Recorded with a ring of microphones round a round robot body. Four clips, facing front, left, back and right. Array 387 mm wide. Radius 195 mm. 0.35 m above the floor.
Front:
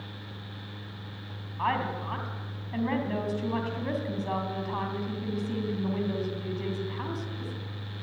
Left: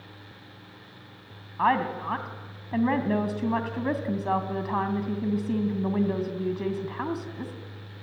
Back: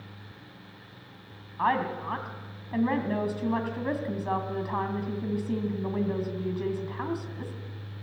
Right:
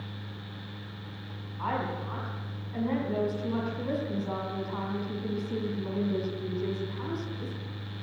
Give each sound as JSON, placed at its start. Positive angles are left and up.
{"t": 1.6, "sound": "a woman speaking", "azimuth_deg": 100, "distance_m": 3.0}